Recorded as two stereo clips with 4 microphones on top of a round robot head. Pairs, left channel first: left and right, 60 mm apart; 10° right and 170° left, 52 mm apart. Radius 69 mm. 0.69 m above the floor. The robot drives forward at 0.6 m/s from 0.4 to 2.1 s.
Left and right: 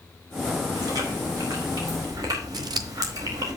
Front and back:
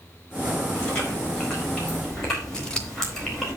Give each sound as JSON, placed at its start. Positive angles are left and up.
{"t": 0.8, "sound": "chewing", "azimuth_deg": -80, "distance_m": 4.5}
{"t": 2.5, "sound": "scissors", "azimuth_deg": -90, "distance_m": 1.2}